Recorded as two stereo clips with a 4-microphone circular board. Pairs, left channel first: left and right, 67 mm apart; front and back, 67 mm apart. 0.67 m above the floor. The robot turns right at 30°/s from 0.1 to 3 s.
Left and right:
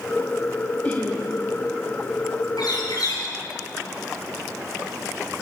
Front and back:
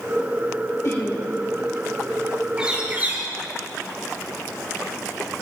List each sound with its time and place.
0.8 s laughter: 30° left, 1.7 m; by 1.2 s 40° left, 1.7 m
2.6 s a bird: 100° left, 4 m; by 3.2 s 115° left, 4 m